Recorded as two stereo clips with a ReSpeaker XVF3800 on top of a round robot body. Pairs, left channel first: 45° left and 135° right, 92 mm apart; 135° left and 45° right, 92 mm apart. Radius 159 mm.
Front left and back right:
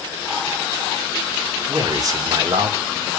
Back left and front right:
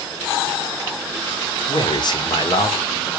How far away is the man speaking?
About 2.5 m.